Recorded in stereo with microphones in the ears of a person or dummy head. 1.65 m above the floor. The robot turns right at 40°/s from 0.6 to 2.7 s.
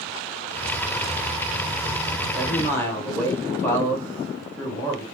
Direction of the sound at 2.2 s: Centre (ahead or behind).